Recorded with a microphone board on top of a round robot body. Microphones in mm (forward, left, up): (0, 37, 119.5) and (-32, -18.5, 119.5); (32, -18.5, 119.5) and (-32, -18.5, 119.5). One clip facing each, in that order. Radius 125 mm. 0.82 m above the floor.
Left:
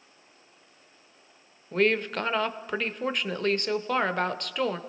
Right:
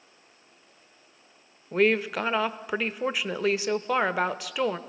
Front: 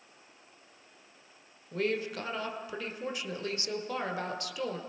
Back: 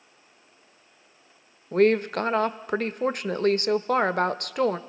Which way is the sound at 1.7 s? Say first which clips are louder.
Right 2 dB, back 12 dB; 155° left.